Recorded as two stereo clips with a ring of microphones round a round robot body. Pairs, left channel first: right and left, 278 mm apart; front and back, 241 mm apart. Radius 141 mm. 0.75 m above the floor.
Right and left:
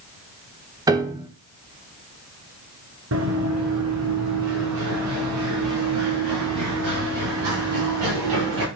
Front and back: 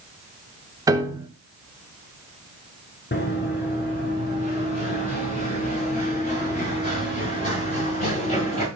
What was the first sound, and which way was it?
A piano, 140° left.